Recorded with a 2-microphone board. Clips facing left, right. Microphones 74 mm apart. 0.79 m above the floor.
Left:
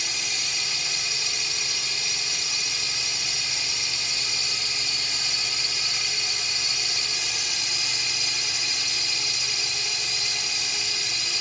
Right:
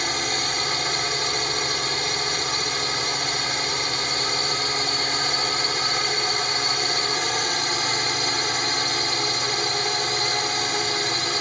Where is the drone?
55° right (ahead or behind).